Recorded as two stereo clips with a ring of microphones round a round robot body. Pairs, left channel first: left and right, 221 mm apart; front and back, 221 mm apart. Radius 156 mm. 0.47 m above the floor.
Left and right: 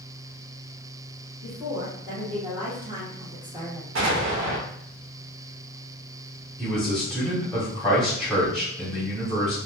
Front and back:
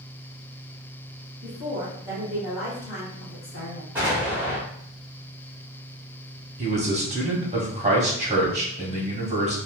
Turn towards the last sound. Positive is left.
turn(degrees=175)